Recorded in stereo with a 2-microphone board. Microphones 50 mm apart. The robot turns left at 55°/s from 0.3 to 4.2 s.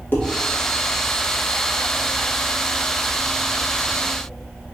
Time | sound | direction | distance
0.1 | dishes clattering | 45° left (ahead or behind) | 1.1 m